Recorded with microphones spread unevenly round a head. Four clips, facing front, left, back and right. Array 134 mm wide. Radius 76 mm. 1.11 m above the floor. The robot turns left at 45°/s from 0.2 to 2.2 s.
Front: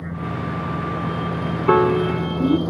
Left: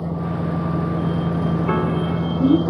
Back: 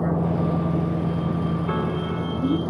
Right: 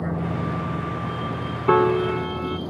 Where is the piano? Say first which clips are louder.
Right 3 dB, front 9 dB; 20° right; by 2.6 s 45° right.